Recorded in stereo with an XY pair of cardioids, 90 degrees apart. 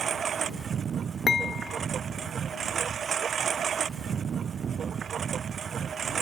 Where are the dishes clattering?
40° left.